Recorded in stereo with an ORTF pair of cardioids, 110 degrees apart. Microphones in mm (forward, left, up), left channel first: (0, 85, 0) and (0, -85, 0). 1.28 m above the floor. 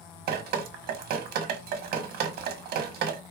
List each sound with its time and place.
0.3 s dripping: 65° right, 1.5 m